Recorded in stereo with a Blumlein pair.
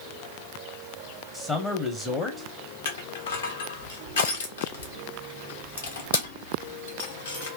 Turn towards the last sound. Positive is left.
turn(degrees=65)